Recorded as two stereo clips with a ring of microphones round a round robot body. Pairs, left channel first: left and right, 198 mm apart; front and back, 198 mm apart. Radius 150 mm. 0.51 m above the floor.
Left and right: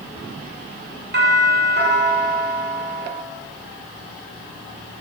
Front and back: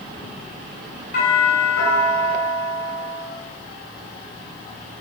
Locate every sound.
1.1 s a doorbell: 60° right, 8 m